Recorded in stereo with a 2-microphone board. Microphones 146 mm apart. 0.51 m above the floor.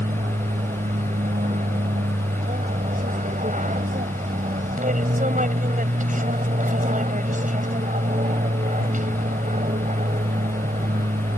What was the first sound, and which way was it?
An aircraft, 60° right (ahead or behind).